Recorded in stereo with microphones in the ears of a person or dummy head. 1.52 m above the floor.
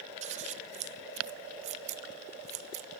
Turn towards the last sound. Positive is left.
turn(degrees=-35)  # may be behind; listen again after turning